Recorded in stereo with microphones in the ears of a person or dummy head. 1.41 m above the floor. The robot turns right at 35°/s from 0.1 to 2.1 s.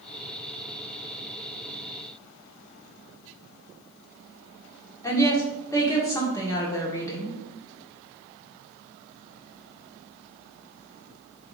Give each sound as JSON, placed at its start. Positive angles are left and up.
{"t": 5.0, "sound": "a woman speaking", "side_deg": 15, "distance_m": 1.2}